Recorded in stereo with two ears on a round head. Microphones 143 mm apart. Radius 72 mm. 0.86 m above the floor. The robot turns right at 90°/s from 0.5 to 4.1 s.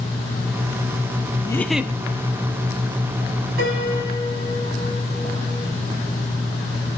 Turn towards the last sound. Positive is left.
turn(degrees=-20)